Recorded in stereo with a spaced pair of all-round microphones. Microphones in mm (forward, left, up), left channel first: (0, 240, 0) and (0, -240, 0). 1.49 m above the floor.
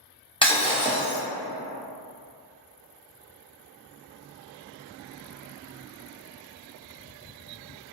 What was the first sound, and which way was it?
Breaking glass, 10° left (ahead or behind).